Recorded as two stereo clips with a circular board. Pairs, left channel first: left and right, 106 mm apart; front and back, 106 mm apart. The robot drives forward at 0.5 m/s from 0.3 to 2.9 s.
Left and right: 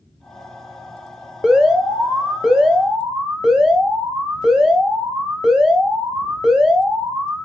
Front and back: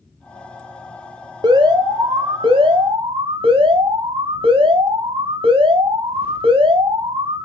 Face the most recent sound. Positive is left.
turn(degrees=-175)